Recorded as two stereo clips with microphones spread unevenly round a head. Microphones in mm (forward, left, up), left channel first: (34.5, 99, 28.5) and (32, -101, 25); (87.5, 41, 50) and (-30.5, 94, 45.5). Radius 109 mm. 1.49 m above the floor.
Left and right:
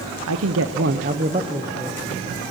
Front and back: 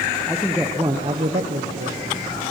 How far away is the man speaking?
About 0.8 m.